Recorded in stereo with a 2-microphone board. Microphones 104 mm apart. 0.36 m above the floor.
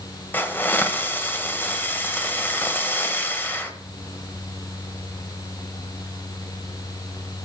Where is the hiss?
20° left (ahead or behind), 1.1 m.